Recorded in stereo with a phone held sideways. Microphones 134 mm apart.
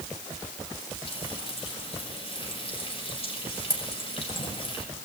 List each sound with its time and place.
1.1 s frying: 45° left (ahead or behind), 5.5 m